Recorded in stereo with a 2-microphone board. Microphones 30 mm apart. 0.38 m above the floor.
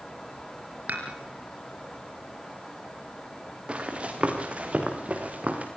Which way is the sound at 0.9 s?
65° right (ahead or behind).